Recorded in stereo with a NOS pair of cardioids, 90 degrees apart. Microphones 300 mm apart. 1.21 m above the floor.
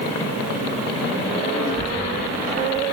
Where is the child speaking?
40° left, 8 m.